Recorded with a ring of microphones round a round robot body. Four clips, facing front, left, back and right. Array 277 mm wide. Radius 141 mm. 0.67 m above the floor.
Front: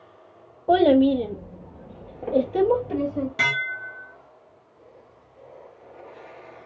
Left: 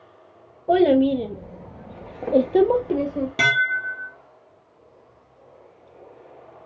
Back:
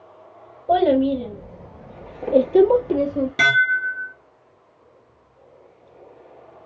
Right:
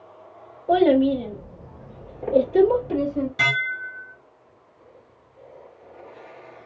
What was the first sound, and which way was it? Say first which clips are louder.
A child speaking: left 1 dB, even; 30° left.